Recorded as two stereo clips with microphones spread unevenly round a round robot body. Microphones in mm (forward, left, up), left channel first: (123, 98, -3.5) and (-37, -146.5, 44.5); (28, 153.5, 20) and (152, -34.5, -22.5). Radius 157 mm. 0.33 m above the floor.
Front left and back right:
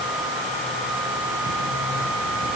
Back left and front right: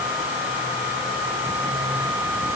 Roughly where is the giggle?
No giggle in this recording.